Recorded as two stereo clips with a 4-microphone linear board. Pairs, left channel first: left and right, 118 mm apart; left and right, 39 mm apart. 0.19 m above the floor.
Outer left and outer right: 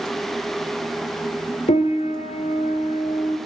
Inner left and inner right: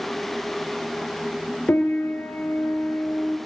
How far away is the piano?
About 1.6 m.